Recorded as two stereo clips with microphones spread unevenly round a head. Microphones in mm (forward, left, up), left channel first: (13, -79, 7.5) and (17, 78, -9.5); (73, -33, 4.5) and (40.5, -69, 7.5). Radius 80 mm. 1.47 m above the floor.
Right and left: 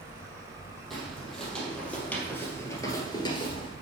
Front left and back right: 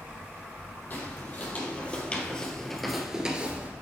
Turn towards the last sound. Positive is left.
turn(degrees=-105)